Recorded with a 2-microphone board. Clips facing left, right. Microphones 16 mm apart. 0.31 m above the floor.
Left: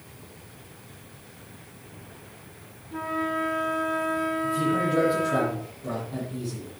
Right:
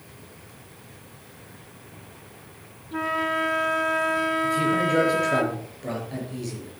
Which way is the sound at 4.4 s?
70° right (ahead or behind).